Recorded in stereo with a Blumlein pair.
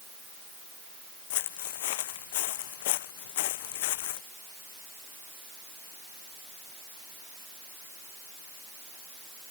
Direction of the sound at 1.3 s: 50° left.